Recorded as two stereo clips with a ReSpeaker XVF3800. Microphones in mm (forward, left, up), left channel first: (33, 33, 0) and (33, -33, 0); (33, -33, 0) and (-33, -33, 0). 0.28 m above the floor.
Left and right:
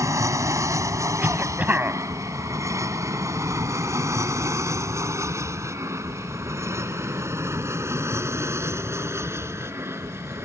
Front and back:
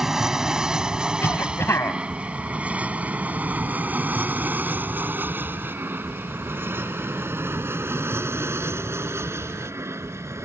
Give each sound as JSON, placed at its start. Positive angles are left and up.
{"t": 0.0, "sound": "an aircraft", "azimuth_deg": -100}
{"t": 1.2, "sound": "a cough", "azimuth_deg": -35}